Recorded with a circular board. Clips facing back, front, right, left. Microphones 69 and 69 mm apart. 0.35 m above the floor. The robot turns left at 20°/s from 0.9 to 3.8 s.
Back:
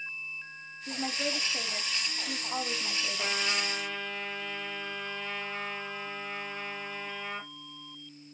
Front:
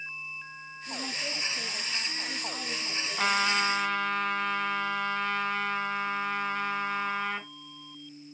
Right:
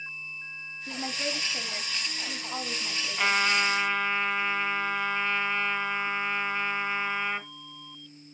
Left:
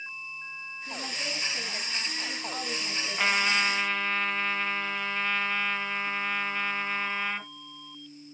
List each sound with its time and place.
0.9 s a woman speaking: 140° right, 2 m; by 3.4 s 170° left, 2 m
3.2 s a trumpet: 5° left, 2.0 m; by 7.5 s 5° right, 2.0 m